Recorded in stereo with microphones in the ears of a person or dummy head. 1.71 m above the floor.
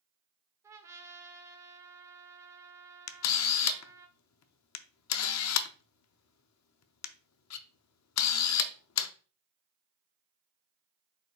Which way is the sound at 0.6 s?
15° right (ahead or behind).